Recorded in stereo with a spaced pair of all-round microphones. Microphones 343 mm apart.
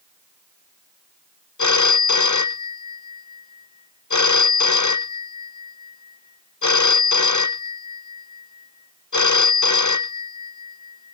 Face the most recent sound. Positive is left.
turn(degrees=55)  # may be behind; listen again after turning